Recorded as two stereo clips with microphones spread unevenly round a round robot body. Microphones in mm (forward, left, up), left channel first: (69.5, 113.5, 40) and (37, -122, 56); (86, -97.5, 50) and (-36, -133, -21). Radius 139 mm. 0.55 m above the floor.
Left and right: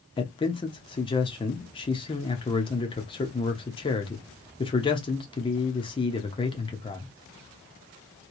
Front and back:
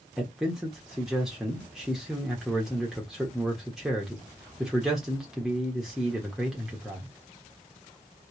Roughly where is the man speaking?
Behind left.